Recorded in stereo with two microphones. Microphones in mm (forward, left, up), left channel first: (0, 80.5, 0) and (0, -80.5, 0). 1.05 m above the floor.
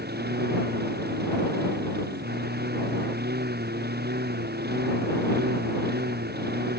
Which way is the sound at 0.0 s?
85° right.